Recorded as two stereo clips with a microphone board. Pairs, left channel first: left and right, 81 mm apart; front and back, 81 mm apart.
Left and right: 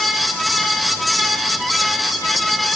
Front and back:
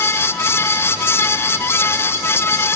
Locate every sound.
Only background noise.